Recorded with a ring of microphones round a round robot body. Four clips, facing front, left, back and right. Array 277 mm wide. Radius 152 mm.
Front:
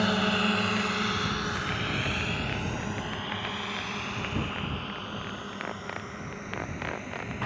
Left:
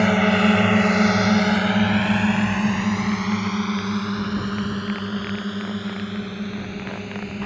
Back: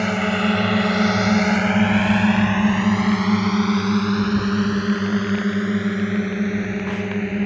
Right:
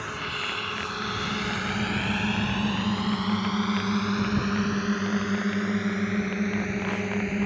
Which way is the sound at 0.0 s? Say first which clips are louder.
Left 16 dB, back 6 dB; 100° left.